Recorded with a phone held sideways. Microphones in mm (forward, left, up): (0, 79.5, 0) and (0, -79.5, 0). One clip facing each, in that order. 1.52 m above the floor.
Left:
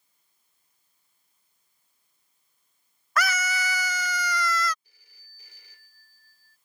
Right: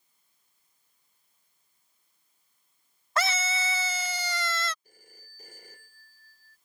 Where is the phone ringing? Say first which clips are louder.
Right 13 dB; 45° right (ahead or behind).